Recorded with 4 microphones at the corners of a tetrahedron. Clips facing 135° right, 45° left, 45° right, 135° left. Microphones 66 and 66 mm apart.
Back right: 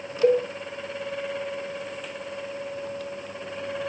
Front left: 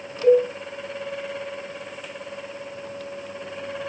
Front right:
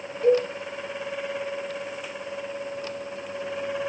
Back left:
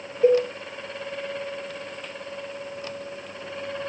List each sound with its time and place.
0.2 s a cowbell: 160° right, 0.9 m